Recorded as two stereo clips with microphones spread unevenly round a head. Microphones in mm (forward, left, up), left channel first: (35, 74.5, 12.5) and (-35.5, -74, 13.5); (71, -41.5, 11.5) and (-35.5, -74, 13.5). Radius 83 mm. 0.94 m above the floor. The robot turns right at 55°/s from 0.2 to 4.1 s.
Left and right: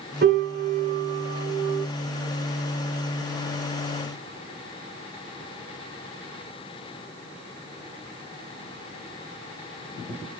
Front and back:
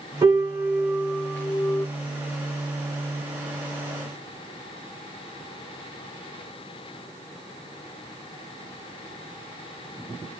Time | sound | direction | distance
0.2 | a piano | 120° right | 0.9 m